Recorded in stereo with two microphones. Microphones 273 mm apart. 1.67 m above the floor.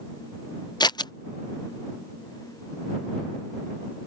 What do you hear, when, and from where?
0.8 s scissors: 15° left (ahead or behind)